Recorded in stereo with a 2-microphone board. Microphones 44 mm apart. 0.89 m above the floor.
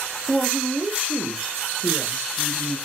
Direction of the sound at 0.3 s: Centre (ahead or behind).